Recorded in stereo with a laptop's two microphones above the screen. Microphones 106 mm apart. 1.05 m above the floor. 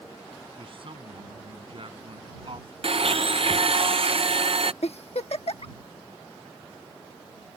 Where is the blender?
60° right (ahead or behind).